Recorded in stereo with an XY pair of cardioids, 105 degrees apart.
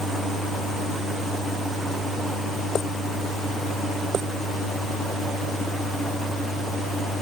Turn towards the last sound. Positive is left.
No sound to turn to.